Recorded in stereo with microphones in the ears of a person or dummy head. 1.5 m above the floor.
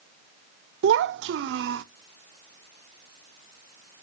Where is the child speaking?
70° right (ahead or behind), 0.6 m.